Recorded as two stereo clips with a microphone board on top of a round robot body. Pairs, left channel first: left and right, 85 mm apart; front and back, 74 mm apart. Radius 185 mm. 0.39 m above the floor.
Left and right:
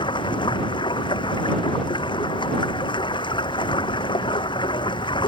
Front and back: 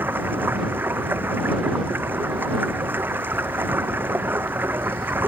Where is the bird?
I don't hear a bird.